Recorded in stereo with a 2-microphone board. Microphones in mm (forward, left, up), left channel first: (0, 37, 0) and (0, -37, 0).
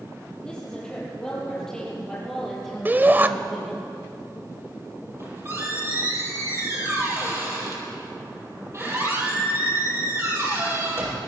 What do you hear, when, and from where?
0.4 s a woman speaking: 10° left (ahead or behind), 8 m; by 3.9 s centre (ahead or behind), 6.5 m
2.9 s a shout: 25° right (ahead or behind), 1.1 m
5.1 s a squeak: 35° right (ahead or behind), 6 m